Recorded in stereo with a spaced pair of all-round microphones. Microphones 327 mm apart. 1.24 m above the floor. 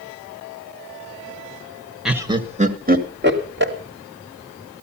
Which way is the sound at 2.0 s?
Centre (ahead or behind).